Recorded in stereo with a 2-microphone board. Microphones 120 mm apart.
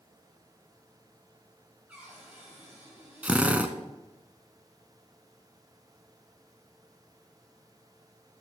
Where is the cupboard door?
15° right (ahead or behind), 5.5 m.